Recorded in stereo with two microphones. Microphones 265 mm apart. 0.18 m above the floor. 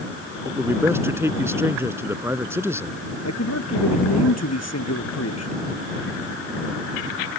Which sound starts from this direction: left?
A man speaking, at 3.2 s.